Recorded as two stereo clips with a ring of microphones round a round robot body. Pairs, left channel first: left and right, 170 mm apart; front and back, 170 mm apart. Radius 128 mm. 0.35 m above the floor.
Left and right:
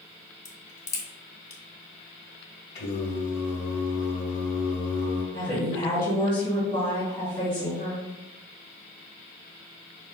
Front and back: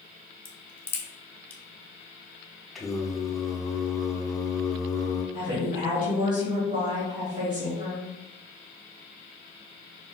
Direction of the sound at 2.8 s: 90° left.